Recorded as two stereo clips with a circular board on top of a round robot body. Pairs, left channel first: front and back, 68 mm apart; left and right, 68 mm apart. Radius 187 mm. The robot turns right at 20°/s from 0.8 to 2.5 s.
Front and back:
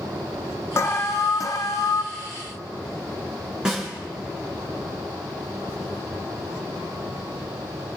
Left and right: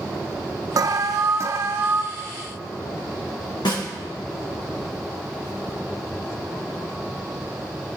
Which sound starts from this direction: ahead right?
An alarm, at 0.8 s.